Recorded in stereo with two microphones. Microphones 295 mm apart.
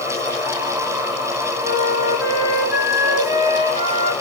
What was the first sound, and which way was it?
A flute, 45° right (ahead or behind).